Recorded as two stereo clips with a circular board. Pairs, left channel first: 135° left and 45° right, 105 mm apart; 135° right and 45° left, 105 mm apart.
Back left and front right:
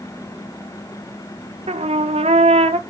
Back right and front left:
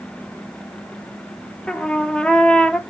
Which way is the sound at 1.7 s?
55° right.